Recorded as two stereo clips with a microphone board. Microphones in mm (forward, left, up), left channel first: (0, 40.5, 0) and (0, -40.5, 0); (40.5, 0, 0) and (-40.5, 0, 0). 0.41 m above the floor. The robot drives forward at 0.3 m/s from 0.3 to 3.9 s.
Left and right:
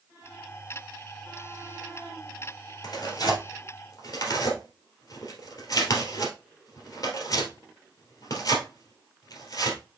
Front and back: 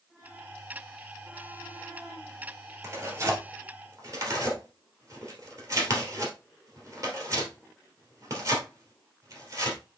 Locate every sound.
2.8 s tearing paper: 125° left, 2 m; by 9.8 s 135° left, 2.5 m